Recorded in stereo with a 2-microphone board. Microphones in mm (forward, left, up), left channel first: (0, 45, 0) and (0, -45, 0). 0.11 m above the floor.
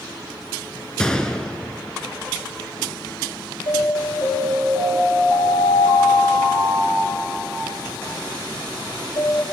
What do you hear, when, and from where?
1.0 s a gunshot: 10° left (ahead or behind), 0.6 m
3.7 s an alarm: 70° left (ahead or behind), 6 m